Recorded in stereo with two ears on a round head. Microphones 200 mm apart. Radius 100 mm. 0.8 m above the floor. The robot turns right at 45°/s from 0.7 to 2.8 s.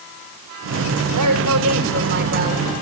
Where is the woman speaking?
100° right, 6.5 m; by 2.7 s 25° right, 6.5 m.